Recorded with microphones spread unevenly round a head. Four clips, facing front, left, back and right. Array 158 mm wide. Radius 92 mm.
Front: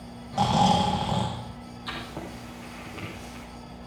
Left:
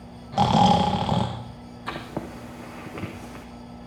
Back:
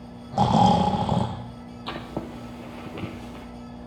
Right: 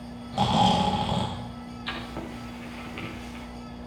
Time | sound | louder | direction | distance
0.3 | snoring | left 4 dB, back 3 dB | 155° left | 0.9 m
1.9 | writing | left 4 dB, back 4 dB | 140° left | 0.9 m